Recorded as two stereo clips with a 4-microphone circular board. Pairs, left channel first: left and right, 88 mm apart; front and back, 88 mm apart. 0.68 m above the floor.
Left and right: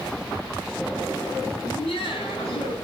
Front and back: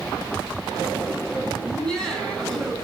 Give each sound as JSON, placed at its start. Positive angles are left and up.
{"t": 1.6, "sound": "laughter", "azimuth_deg": 85, "distance_m": 6.0}